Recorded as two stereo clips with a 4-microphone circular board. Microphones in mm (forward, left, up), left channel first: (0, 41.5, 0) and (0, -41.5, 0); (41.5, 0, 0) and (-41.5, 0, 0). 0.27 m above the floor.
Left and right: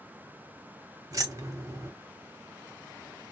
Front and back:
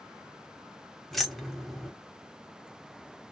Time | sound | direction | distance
1.1 | keys jangling | 90° right | 0.8 m